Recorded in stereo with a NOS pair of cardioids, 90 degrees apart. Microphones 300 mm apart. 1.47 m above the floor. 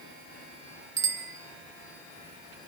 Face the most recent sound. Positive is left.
turn(degrees=-45)